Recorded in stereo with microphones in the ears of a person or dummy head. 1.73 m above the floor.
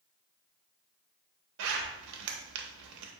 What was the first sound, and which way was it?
A zipper, 65° right (ahead or behind).